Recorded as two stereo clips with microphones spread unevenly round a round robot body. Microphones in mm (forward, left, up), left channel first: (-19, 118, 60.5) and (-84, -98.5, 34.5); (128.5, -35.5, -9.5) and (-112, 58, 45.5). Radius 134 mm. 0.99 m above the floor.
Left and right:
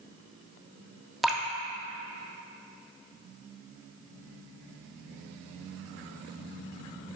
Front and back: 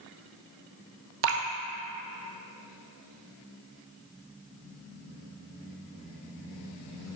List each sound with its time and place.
1.2 s dripping: 160° left, 0.7 m